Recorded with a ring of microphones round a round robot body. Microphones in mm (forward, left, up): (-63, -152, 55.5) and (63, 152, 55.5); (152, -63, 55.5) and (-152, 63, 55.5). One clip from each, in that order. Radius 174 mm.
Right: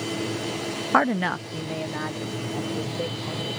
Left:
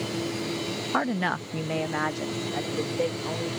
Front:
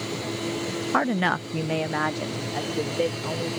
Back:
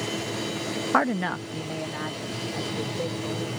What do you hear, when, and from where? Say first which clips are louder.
0.9 s a woman speaking: right 6 dB, front 1 dB; 140° right; by 3.5 s 15° left